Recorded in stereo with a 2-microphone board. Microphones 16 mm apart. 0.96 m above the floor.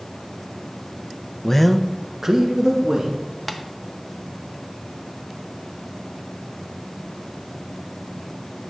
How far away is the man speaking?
About 0.6 m.